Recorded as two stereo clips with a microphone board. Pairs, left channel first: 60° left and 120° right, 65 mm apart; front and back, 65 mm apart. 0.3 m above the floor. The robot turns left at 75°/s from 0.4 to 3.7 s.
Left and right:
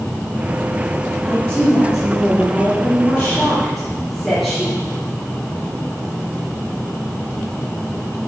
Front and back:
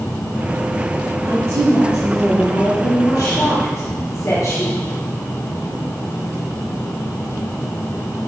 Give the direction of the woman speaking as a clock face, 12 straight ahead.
7 o'clock.